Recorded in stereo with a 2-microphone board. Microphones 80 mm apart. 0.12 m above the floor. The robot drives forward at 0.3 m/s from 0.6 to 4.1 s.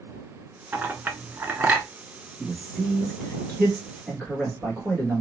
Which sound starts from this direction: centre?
A man speaking, at 2.4 s.